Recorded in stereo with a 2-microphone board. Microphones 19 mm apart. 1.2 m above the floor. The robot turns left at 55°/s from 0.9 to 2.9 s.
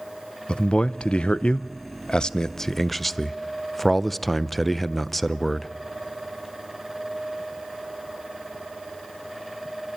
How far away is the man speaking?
About 0.5 m.